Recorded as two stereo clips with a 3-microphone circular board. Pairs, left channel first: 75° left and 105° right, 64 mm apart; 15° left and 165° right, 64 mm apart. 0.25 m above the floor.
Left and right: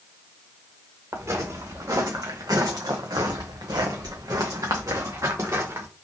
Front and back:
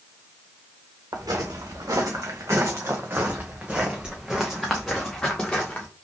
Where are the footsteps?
145° right, 1.7 m; by 5.9 s 60° right, 1.9 m.